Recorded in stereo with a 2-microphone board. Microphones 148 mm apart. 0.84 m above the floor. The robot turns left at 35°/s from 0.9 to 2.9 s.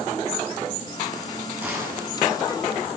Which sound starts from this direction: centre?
A gunshot, at 1.6 s.